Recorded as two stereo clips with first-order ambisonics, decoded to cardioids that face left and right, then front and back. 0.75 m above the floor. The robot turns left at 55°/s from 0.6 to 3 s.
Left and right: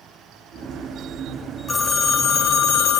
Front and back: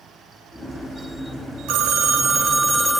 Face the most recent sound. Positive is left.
turn(degrees=90)